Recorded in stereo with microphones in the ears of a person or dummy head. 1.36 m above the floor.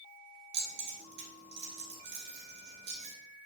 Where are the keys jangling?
70° right (ahead or behind), 2 m.